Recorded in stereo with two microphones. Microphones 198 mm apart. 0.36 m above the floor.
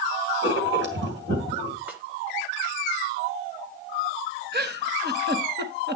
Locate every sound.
0.4 s writing: 60° right (ahead or behind), 3 m
1.9 s a snare drum: 10° right (ahead or behind), 2 m
4.5 s a giggle: 55° right (ahead or behind), 1.1 m